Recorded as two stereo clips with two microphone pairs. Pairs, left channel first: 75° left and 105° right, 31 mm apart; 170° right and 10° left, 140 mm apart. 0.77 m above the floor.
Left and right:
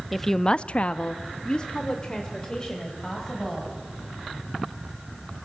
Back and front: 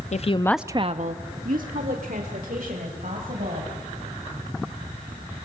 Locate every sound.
0.1 s a woman speaking: 165° left, 0.8 m; by 3.7 s 10° left, 4.5 m